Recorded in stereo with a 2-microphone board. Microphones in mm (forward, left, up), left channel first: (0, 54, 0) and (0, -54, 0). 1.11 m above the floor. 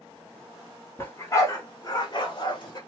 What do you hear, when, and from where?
1.0 s a dog barking: 20° left (ahead or behind), 1.3 m; by 2.8 s 40° left (ahead or behind), 1.1 m